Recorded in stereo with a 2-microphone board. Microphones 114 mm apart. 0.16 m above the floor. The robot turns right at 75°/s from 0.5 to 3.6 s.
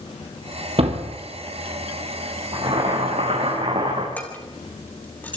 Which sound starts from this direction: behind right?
Boiling, at 2.5 s.